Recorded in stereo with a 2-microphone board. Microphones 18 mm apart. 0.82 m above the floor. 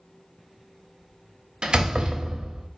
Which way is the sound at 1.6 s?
55° right (ahead or behind).